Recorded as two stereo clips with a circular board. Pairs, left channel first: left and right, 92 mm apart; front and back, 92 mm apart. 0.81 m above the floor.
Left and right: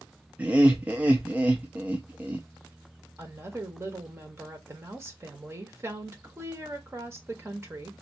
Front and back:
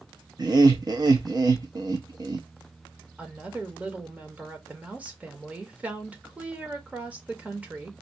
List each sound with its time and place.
0.4 s laughter: 160° right, 0.5 m
3.2 s a woman speaking: 120° right, 1.1 m